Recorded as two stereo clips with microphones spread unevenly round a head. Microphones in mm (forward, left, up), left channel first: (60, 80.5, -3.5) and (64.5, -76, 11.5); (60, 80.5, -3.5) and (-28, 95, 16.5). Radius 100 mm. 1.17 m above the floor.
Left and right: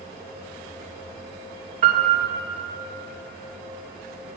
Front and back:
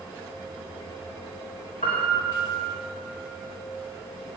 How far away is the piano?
About 2.5 m.